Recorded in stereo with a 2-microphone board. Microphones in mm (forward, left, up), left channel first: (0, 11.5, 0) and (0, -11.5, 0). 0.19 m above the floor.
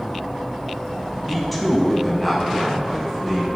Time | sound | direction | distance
1.3 | a man speaking | 5° left (ahead or behind) | 1.0 m